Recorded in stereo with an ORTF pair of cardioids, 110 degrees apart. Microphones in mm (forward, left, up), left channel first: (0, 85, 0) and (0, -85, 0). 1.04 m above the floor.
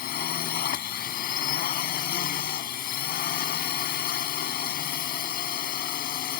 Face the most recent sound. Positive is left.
turn(degrees=60)